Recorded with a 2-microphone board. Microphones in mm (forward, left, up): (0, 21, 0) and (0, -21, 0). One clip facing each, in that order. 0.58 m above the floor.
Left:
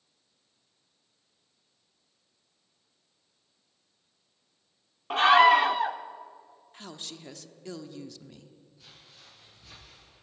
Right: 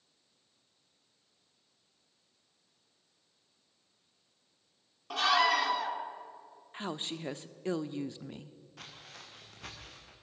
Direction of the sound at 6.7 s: 25° right (ahead or behind).